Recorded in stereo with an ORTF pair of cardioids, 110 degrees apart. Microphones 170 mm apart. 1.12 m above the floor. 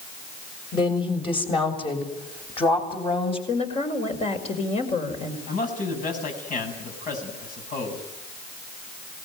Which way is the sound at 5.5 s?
50° left.